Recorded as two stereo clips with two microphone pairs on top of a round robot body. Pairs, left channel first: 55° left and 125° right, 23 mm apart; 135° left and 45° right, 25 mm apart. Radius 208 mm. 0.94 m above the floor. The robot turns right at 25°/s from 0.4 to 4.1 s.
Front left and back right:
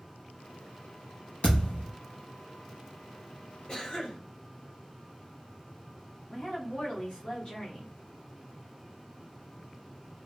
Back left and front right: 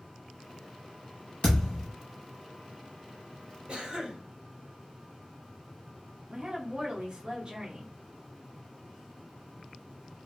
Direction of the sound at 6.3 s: 15° left.